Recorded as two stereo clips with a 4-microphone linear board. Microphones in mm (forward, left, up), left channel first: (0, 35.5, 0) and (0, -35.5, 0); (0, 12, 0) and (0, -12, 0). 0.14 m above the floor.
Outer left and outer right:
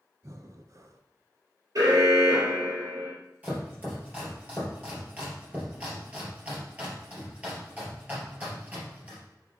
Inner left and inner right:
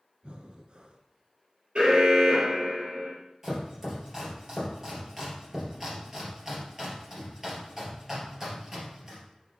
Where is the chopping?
20° right (ahead or behind), 2.5 m.